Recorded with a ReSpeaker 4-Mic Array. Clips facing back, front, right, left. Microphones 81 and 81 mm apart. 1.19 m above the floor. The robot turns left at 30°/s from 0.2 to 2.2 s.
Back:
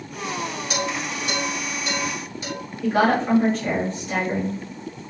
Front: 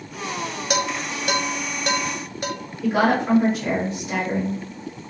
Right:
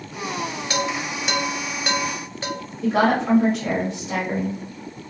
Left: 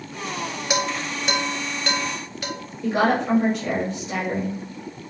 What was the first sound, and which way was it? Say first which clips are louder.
Dishes clattering: front 4 dB, left 1 dB; 20° left.